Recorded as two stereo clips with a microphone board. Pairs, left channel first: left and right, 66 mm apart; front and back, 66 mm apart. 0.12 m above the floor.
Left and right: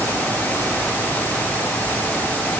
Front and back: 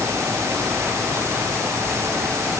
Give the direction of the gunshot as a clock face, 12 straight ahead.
No gunshot in this recording.